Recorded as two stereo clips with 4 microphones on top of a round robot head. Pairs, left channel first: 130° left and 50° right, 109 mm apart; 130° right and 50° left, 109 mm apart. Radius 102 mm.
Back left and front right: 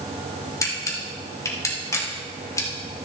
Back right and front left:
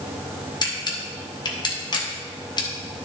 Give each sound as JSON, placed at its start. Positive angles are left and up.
{"t": 0.6, "sound": "a camera shutter", "azimuth_deg": -175, "distance_m": 2.0}